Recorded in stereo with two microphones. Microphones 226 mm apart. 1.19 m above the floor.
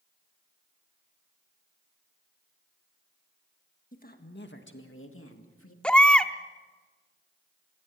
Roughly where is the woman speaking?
Left.